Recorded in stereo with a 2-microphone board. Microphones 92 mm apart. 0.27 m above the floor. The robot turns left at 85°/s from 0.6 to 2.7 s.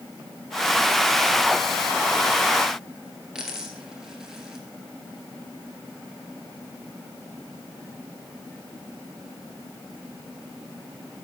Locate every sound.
3.4 s a dropped coin: 5° right (ahead or behind), 2 m